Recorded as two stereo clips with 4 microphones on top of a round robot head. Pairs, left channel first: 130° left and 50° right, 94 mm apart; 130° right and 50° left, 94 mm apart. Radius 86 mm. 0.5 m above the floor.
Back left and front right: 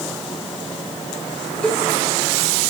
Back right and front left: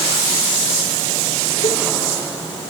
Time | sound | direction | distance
1.6 | a cowbell | 150° right | 8 m